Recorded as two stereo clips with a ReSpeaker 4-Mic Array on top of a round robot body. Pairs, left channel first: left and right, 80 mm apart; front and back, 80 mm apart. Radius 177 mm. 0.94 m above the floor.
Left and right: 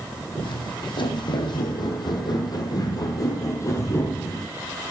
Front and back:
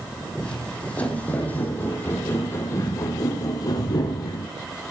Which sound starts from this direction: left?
Footsteps, at 0.4 s.